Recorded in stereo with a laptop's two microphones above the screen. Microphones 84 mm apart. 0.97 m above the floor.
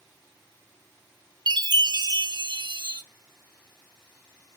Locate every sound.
1.5 s a chime: 60° right (ahead or behind), 0.5 m